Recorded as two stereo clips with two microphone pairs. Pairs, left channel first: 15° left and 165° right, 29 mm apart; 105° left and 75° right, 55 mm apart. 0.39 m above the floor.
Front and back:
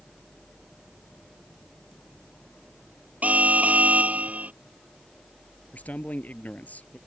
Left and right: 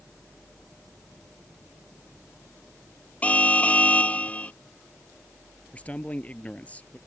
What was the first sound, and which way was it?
An alarm, 170° left.